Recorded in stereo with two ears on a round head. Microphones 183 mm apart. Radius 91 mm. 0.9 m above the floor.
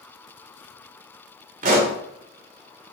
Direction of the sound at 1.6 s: 40° right (ahead or behind).